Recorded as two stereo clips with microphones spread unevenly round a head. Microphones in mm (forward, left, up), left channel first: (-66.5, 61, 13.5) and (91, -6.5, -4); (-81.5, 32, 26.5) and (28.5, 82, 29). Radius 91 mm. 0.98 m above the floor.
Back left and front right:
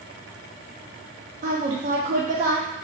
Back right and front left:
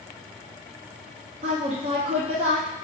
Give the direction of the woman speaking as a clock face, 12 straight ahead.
12 o'clock.